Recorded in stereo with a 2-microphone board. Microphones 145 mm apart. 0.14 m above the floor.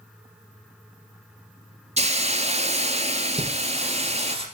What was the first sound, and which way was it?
A hiss, 45° right (ahead or behind).